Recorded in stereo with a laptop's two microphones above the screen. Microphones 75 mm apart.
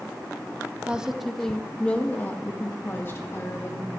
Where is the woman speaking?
15° right (ahead or behind), 0.9 m; by 3.9 s 40° left (ahead or behind), 2.5 m.